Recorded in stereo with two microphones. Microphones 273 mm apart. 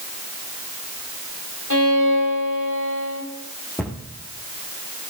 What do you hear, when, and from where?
1.7 s a violin: 85° left, 8 m
3.8 s a cupboard door: 5° left (ahead or behind), 3.5 m